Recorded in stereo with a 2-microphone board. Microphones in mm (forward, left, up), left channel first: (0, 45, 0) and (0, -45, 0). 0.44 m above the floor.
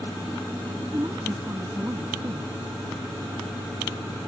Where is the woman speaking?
35° right (ahead or behind).